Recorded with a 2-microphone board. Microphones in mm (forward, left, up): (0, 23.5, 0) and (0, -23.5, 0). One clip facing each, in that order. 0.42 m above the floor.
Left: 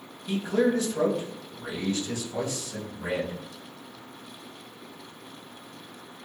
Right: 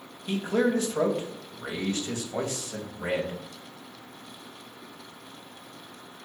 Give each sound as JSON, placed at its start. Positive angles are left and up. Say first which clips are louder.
{"t": 0.3, "sound": "a man speaking", "louder": "left 1 dB", "side_deg": -45, "distance_m": 2.5}